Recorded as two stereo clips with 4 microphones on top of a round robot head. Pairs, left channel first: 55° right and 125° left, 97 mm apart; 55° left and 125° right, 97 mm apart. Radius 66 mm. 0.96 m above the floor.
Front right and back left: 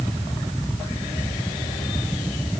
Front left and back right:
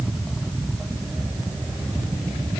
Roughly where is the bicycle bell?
No bicycle bell in this recording.